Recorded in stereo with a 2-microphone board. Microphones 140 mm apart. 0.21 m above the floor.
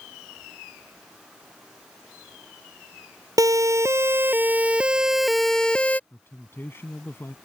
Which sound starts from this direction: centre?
A man speaking, at 6.1 s.